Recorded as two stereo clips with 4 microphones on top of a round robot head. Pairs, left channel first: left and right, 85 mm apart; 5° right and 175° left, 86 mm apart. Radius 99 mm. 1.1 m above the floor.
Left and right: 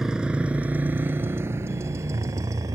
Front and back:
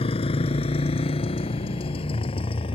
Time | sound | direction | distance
0.0 | a motorcycle | 5° right | ?